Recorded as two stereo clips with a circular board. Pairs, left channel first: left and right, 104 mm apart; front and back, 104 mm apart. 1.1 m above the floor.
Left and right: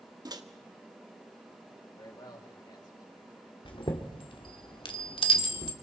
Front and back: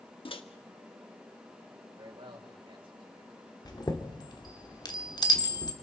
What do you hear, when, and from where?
0.2 s a microwave: 35° right, 1.4 m
2.0 s a man speaking: 140° left, 5 m
3.6 s a chime: 50° left, 2 m